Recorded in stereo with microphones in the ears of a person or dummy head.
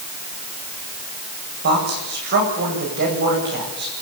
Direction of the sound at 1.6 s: 50° right (ahead or behind).